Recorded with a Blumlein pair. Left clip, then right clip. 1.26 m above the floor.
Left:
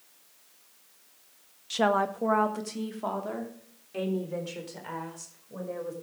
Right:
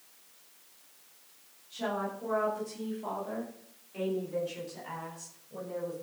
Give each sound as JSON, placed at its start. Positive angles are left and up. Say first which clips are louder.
{"t": 1.7, "sound": "a woman speaking", "louder": "left 9 dB", "azimuth_deg": 50, "distance_m": 1.2}